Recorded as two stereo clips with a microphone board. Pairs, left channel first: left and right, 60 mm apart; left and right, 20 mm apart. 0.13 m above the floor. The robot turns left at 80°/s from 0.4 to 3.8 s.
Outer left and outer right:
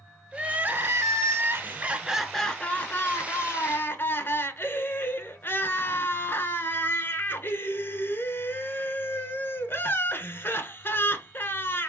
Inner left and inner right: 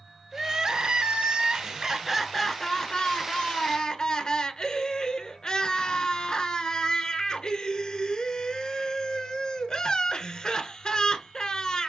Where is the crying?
25° right, 0.7 m; by 11.9 s 60° left, 0.7 m.